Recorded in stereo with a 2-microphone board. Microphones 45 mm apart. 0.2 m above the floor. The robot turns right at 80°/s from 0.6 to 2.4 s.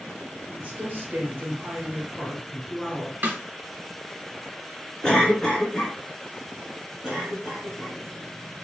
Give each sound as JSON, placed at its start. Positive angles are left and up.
{"t": 0.5, "sound": "a woman speaking", "azimuth_deg": -125, "distance_m": 1.4}
{"t": 3.2, "sound": "a snare drum", "side_deg": -40, "distance_m": 1.1}
{"t": 5.0, "sound": "a cough", "side_deg": 25, "distance_m": 1.6}
{"t": 7.0, "sound": "a cough", "side_deg": 5, "distance_m": 2.0}